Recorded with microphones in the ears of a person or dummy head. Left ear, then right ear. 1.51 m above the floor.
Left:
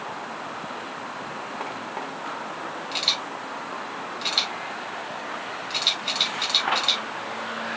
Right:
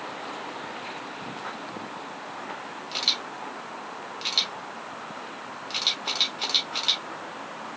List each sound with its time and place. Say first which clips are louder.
2.9 s a camera shutter: left 1 dB; 20° right (ahead or behind), 2.5 m